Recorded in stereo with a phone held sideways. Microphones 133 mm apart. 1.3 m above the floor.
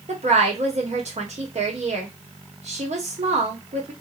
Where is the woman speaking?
65° right (ahead or behind), 1.1 m.